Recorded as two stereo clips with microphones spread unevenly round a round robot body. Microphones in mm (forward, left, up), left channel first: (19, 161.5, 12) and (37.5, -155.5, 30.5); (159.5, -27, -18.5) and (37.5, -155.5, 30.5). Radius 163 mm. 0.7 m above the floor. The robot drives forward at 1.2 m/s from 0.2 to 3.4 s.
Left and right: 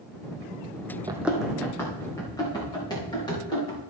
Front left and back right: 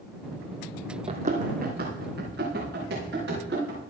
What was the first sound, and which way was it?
Running footsteps, 155° right.